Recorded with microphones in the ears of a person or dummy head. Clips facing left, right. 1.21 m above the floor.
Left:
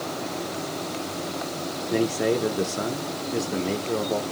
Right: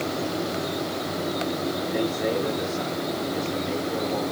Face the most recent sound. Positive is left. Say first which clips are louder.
# left 5 dB
turn(degrees=55)  # may be behind; listen again after turning